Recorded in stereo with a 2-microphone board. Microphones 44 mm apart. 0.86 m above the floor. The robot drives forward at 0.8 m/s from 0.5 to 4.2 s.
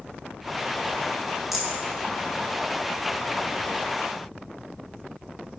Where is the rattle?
5° right (ahead or behind), 5 m.